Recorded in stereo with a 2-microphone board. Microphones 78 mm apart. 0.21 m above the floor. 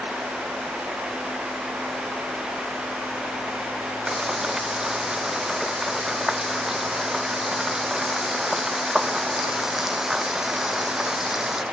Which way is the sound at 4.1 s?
5° right (ahead or behind).